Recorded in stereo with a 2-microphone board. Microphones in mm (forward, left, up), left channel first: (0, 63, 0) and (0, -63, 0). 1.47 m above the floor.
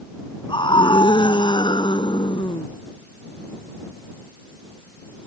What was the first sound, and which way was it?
A scream, 40° left (ahead or behind).